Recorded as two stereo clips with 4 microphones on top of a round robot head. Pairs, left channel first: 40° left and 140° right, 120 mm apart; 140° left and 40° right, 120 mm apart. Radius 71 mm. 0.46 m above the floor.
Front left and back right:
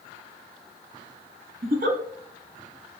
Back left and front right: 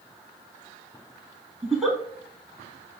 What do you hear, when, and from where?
1.6 s a giggle: 130° right, 0.6 m